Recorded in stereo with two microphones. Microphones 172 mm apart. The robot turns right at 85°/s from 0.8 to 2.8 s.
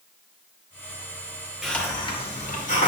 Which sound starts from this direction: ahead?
A hiss, at 1.6 s.